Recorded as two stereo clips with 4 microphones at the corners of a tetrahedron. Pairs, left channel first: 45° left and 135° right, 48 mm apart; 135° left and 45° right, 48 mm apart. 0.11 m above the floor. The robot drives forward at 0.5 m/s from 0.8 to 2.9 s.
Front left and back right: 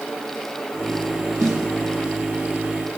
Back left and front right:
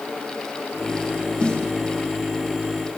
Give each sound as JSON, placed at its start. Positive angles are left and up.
{"t": 1.4, "sound": "a snare drum", "azimuth_deg": -170, "distance_m": 4.5}